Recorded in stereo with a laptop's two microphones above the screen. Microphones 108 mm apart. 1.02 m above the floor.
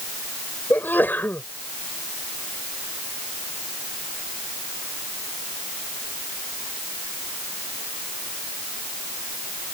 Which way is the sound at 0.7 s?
20° left (ahead or behind).